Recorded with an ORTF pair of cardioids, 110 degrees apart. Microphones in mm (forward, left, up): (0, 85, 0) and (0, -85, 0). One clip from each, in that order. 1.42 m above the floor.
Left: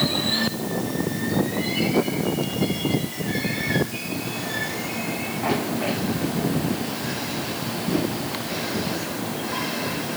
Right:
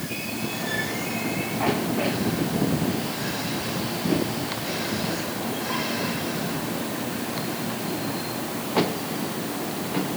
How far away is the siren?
No siren in this recording.